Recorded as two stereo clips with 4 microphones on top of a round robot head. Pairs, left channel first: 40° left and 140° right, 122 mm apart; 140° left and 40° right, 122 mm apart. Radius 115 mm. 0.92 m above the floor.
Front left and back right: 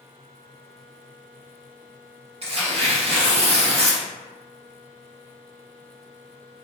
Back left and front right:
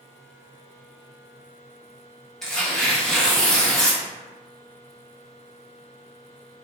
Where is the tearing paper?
135° right, 0.9 m.